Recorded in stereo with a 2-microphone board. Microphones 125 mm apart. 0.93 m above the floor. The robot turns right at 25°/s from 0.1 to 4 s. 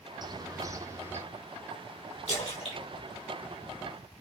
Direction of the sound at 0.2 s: 35° right (ahead or behind).